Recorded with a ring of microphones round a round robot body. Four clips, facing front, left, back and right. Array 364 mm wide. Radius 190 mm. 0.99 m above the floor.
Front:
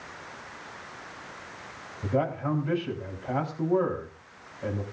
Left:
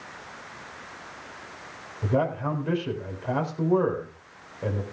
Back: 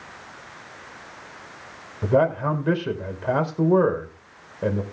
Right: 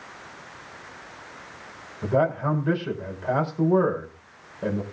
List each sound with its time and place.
2.0 s a man speaking: 175° right, 4.5 m